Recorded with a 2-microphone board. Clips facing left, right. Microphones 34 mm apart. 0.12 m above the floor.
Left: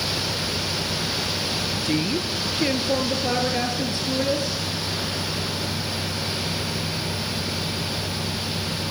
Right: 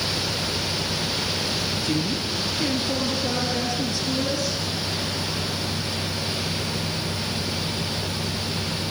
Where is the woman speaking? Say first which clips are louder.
Left 4 dB; 45° left (ahead or behind), 2.5 m; by 4.6 s 30° left (ahead or behind), 4 m.